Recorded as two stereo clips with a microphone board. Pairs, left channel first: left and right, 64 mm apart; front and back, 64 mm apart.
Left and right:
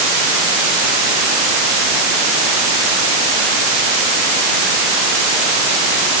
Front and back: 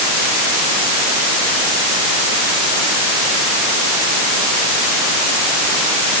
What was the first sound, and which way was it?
Only background noise.